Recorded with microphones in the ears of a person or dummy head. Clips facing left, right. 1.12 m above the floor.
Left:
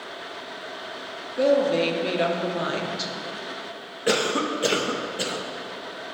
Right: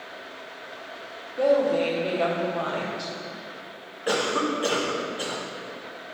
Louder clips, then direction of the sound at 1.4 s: Left 1 dB; 25° left (ahead or behind).